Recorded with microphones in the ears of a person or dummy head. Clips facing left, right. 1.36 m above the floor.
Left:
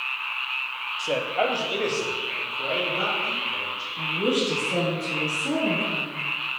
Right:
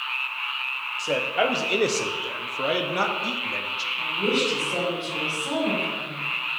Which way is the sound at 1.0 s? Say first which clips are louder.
Right 1 dB; centre (ahead or behind).